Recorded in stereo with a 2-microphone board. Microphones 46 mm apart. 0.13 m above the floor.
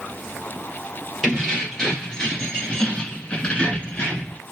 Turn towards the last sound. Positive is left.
turn(degrees=20)  # may be behind; listen again after turning